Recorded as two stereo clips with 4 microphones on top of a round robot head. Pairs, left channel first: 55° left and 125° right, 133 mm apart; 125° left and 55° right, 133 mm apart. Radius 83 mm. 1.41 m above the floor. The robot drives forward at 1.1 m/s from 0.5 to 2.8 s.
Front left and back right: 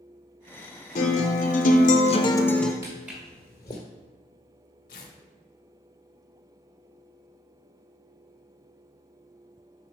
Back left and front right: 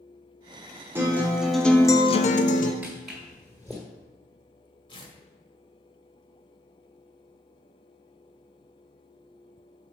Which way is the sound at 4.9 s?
75° left.